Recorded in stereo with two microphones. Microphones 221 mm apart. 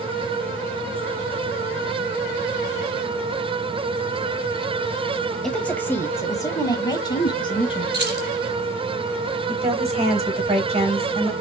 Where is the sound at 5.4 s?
5° left (ahead or behind), 0.9 m; by 7.8 s 20° left (ahead or behind), 1.8 m.